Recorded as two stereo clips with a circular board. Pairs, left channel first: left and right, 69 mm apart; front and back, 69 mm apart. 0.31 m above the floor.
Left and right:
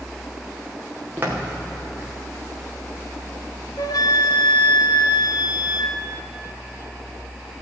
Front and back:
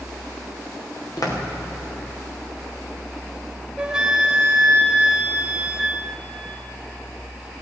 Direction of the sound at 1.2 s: 30° right.